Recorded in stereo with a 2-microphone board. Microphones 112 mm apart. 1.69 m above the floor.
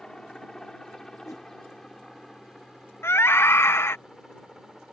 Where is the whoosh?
30° left (ahead or behind).